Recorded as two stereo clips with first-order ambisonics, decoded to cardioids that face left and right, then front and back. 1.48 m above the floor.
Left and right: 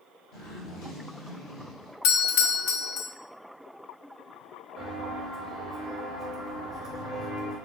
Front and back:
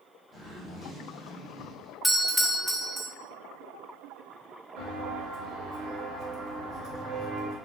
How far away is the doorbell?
About 0.7 m.